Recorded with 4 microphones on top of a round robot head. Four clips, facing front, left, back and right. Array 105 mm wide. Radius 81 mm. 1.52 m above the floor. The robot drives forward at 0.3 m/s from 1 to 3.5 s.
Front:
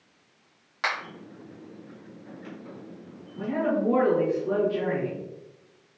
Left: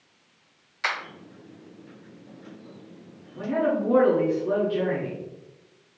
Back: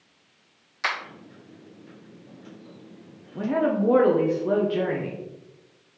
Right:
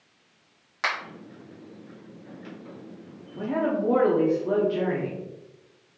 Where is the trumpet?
I don't hear a trumpet.